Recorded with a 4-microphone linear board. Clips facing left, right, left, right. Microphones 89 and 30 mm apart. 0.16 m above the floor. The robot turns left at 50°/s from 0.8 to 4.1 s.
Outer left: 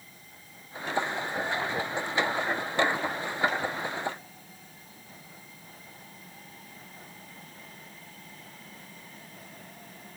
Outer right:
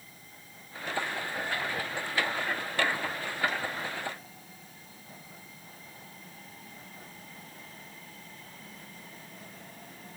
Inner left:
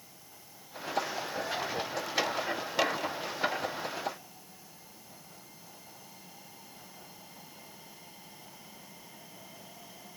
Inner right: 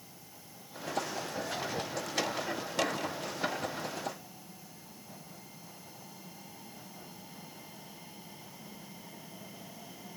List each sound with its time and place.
Only background noise.